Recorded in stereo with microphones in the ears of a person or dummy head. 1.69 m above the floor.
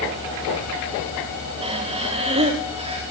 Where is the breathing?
35° right (ahead or behind), 4 m.